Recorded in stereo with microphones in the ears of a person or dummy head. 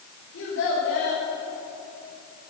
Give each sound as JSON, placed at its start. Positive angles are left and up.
{"t": 0.3, "sound": "a child speaking", "side_deg": 85, "distance_m": 5.5}